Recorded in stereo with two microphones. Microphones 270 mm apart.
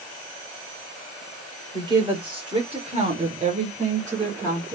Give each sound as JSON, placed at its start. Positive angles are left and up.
{"t": 1.7, "sound": "a woman speaking", "side_deg": -15, "distance_m": 1.5}